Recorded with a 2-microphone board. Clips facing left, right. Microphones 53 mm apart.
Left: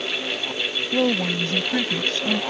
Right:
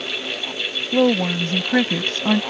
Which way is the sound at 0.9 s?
20° right (ahead or behind).